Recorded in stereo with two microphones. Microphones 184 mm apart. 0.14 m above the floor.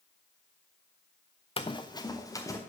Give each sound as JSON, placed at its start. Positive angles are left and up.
{"t": 1.6, "sound": "running footsteps", "side_deg": 30, "distance_m": 0.7}